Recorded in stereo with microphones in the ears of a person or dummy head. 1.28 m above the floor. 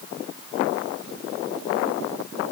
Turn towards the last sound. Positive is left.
No sound to turn to.